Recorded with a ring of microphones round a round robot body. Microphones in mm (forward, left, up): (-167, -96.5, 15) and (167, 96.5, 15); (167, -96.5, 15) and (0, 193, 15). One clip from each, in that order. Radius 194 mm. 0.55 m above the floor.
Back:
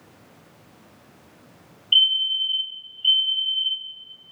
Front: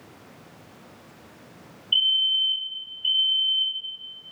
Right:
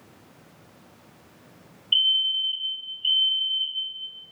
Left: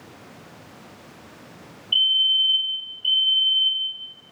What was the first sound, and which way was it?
A fire alarm, 110° right.